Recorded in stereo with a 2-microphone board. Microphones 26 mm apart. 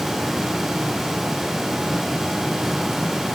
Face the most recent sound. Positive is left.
No sound to turn to.